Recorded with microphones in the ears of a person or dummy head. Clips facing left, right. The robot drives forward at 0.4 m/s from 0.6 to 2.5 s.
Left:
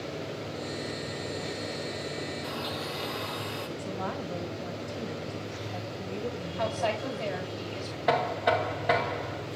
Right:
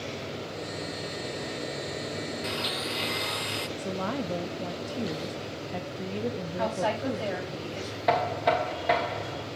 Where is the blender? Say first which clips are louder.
Right 1 dB; 35° right (ahead or behind), 0.6 m; by 3.7 s 40° right (ahead or behind), 0.6 m.